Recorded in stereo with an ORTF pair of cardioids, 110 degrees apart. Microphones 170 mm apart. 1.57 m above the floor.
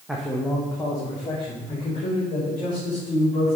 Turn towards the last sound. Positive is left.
turn(degrees=40)